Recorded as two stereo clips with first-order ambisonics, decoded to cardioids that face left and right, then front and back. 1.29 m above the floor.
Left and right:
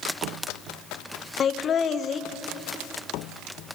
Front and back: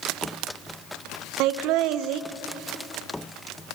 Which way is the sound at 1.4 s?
155° left.